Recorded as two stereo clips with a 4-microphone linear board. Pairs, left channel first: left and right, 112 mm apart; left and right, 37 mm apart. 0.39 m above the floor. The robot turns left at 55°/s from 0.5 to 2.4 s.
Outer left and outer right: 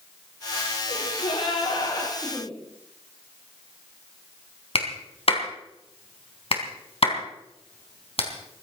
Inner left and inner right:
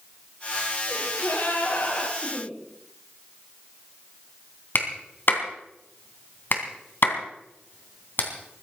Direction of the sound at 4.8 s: 60° left (ahead or behind).